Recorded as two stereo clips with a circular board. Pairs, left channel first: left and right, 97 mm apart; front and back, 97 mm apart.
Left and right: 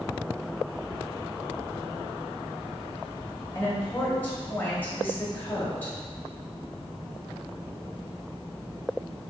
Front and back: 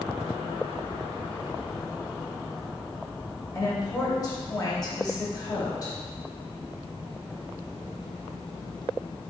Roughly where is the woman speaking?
Ahead left.